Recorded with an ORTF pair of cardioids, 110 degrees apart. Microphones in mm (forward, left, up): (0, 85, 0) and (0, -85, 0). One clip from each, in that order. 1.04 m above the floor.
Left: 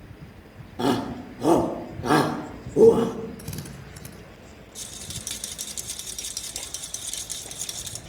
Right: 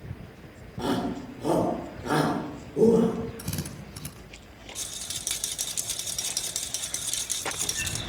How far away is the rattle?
About 2 m.